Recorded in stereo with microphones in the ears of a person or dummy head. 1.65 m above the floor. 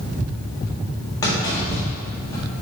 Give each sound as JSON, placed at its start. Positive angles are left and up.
{"t": 1.2, "sound": "a clunk", "side_deg": 25, "distance_m": 1.5}